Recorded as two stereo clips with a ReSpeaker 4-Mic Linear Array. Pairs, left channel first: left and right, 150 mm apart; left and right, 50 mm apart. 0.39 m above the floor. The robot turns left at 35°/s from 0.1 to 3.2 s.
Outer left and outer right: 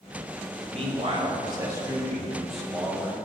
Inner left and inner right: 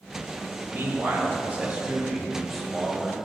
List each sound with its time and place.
0.7 s a man speaking: 115° right, 1.5 m; by 3.2 s 160° left, 1.5 m